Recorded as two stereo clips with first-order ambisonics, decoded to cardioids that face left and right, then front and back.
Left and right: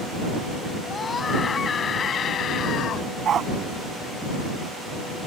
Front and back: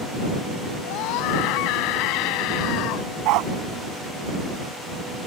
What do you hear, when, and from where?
0.8 s a scream: 15° left; by 3.1 s 35° left
3.2 s a dog barking: 150° right